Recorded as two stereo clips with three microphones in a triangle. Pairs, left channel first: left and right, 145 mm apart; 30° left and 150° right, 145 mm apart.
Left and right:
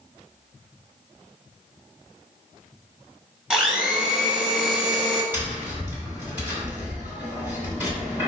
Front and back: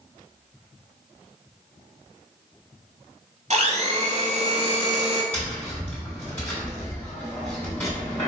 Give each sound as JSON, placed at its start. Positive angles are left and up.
{"t": 3.5, "sound": "a blender", "azimuth_deg": -175, "distance_m": 0.7}
{"t": 5.3, "sound": "tapping", "azimuth_deg": -30, "distance_m": 1.7}